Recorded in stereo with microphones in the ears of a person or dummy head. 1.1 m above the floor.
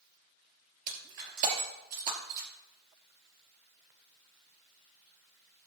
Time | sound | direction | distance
0.9 | breaking glass | 50° right (ahead or behind) | 2.5 m